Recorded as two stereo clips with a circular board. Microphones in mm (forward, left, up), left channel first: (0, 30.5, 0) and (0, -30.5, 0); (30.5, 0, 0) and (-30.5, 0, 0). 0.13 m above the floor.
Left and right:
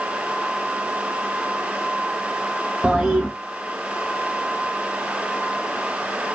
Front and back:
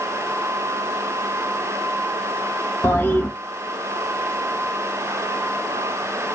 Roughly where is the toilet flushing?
Ahead right.